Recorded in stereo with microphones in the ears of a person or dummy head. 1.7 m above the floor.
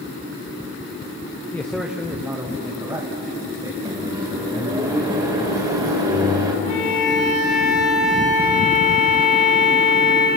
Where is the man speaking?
10° left (ahead or behind), 0.7 m; by 3.8 s 20° right (ahead or behind), 2 m.